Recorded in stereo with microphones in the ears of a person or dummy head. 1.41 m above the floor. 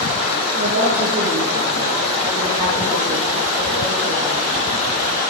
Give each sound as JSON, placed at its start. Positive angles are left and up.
{"t": 0.6, "sound": "a woman speaking", "side_deg": -35, "distance_m": 5.0}